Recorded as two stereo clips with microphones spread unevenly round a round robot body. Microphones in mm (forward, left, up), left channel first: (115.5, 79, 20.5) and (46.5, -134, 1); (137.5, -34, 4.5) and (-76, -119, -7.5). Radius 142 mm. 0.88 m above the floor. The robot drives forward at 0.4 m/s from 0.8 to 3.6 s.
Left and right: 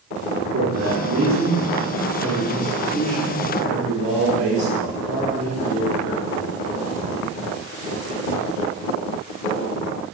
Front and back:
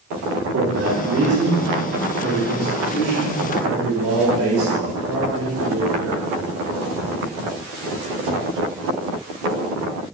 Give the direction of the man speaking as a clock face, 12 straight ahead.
5 o'clock.